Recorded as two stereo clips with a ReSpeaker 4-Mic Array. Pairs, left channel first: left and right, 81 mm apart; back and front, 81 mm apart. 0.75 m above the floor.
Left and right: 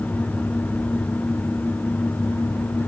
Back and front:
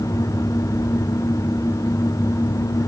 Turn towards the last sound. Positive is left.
No sound to turn to.